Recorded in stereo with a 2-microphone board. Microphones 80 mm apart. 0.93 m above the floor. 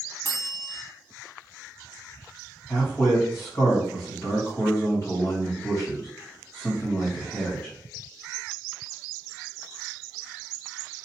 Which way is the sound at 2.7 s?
40° left (ahead or behind).